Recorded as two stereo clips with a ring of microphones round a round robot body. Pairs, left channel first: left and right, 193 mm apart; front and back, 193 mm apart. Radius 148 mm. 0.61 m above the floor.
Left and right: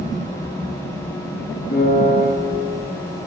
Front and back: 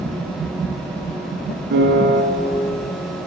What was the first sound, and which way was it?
A piano, 150° left.